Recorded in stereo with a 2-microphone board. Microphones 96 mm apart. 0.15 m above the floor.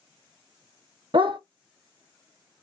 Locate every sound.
1.1 s a dog barking: 60° right (ahead or behind), 0.7 m